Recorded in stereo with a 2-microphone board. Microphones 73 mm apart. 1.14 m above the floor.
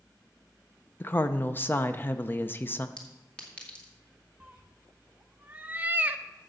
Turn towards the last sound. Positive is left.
turn(degrees=-25)  # may be behind; listen again after turning